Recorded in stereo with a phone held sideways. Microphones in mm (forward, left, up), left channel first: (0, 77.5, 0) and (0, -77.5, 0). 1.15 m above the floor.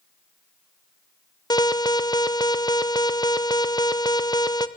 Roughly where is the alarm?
Left.